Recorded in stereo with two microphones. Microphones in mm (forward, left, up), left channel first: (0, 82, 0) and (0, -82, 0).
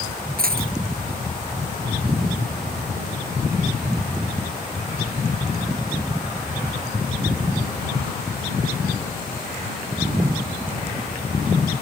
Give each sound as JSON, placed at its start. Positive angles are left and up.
{"t": 0.4, "sound": "a dropped coin", "side_deg": -65}